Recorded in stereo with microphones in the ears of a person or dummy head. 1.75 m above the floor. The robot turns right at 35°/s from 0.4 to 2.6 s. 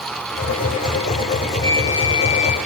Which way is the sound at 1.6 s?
15° left.